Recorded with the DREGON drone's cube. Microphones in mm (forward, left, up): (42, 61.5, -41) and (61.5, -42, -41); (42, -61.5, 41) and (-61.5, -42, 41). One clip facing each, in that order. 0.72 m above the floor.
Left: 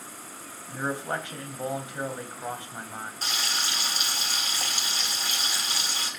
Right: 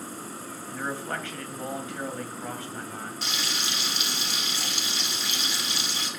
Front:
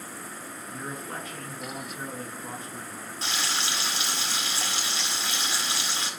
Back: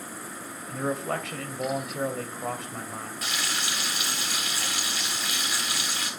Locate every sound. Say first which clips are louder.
0.7 s a man speaking: left 2 dB, back 9 dB; 170° left, 3 m
3.2 s frying: left 2 dB, front 3 dB; 50° left, 4 m